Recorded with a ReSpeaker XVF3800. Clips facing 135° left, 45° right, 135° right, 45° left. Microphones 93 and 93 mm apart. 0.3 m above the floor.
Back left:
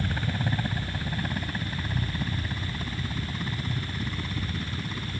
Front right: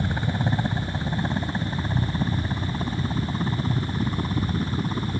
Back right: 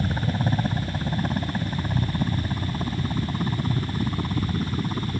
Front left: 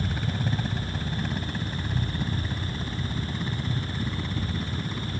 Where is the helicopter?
105° right; by 5.2 s 90° right.